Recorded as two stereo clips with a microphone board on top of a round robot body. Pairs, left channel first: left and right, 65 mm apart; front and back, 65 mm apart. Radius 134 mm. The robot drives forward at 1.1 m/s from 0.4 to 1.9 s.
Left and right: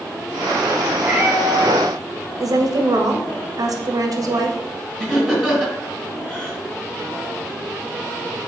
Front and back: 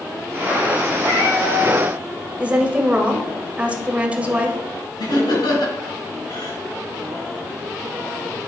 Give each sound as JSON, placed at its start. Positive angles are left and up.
{"t": 1.0, "sound": "a cat meowing", "azimuth_deg": -20, "distance_m": 3.0}
{"t": 2.4, "sound": "a woman speaking", "azimuth_deg": -110, "distance_m": 2.0}
{"t": 5.0, "sound": "laughter", "azimuth_deg": 10, "distance_m": 4.5}